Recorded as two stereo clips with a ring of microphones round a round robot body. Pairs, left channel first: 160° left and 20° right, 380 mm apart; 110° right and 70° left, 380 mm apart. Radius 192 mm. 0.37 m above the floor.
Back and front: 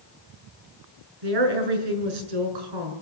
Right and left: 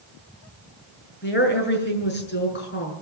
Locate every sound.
1.2 s a woman speaking: 50° right, 6 m